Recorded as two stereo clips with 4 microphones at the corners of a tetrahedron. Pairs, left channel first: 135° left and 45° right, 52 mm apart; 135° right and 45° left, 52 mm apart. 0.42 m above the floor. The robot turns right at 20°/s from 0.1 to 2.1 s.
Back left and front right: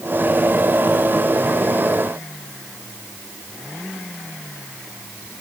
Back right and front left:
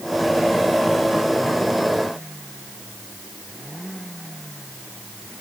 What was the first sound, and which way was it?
Only background noise.